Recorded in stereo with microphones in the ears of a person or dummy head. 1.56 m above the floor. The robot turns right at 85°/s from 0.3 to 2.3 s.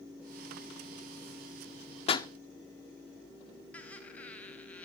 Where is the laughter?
10° left (ahead or behind), 2.5 m.